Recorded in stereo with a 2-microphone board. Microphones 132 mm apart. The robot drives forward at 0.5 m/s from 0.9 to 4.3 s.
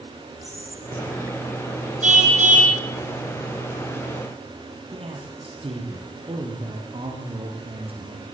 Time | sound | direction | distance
0.4 | whispering | 20° right (ahead or behind) | 2.5 m
2.0 | a car horn | 70° right (ahead or behind) | 3 m
4.9 | a man speaking | 45° right (ahead or behind) | 5.5 m